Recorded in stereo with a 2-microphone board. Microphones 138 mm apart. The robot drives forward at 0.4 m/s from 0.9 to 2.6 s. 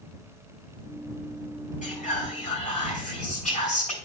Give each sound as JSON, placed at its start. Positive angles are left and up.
{"t": 1.8, "sound": "whispering", "side_deg": 70, "distance_m": 3.5}